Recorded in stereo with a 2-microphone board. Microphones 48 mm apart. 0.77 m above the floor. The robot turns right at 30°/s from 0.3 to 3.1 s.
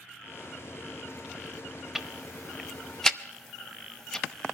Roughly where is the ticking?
Centre.